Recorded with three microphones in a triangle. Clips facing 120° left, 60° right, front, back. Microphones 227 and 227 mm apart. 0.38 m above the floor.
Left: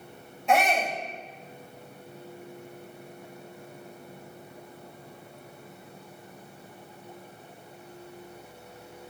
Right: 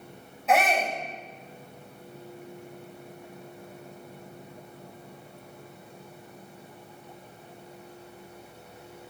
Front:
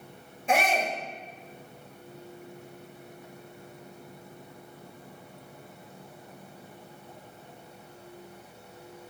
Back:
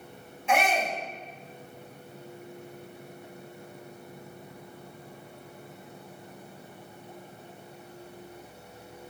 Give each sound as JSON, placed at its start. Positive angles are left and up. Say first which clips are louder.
{"t": 0.5, "sound": "a shout", "louder": "even, even", "azimuth_deg": 30, "distance_m": 1.6}